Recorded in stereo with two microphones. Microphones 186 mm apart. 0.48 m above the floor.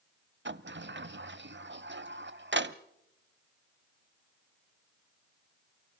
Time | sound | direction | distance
0.5 | a sliding door | 75° right (ahead or behind) | 0.6 m